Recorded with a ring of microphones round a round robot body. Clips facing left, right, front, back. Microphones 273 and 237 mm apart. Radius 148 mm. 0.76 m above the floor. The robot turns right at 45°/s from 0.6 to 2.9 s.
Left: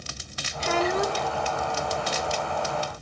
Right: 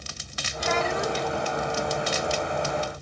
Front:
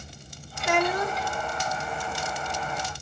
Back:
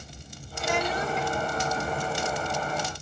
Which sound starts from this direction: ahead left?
A child speaking, at 0.6 s.